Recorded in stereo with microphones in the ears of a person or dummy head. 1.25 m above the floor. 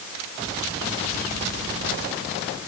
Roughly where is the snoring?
No snoring in this recording.